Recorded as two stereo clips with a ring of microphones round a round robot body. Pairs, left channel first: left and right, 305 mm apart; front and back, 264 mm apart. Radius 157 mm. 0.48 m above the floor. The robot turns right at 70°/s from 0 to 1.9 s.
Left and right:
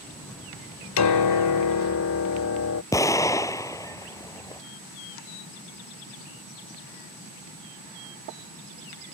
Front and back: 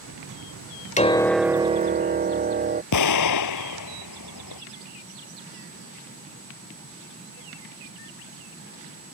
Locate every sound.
1.0 s a piano: 60° left; by 2.8 s 125° left
2.9 s an explosion: 10° left